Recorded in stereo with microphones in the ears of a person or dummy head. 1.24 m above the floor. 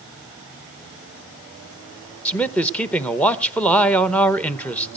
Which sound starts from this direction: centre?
A man speaking, at 2.2 s.